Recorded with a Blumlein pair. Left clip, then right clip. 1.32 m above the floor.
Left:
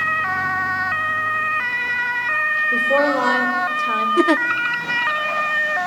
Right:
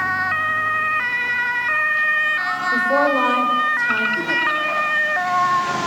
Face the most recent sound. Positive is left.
turn(degrees=35)